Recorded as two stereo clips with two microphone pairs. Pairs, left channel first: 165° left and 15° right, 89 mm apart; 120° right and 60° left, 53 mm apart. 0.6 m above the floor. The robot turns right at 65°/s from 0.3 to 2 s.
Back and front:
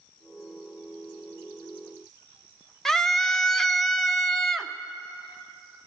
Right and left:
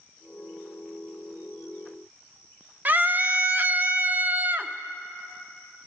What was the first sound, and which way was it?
A scream, 85° left.